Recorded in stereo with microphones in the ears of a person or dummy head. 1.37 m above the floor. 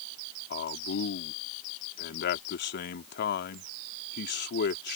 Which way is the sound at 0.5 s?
60° left (ahead or behind).